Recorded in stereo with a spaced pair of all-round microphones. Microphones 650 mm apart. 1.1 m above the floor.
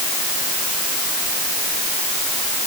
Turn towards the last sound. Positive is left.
No sound to turn to.